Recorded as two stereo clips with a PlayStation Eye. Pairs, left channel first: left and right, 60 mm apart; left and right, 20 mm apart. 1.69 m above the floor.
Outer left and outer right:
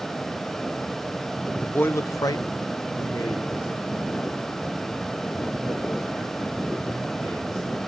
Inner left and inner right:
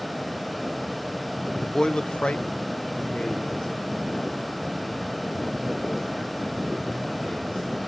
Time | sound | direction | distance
1.6 | a man speaking | 20° left (ahead or behind) | 0.7 m